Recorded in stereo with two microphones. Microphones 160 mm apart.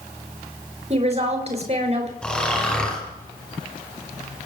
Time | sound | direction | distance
0.9 | a woman speaking | 45° right (ahead or behind) | 4.5 m
2.2 | snoring | 5° left (ahead or behind) | 5.5 m